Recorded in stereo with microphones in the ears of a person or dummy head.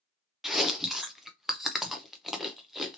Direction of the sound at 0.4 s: Centre (ahead or behind).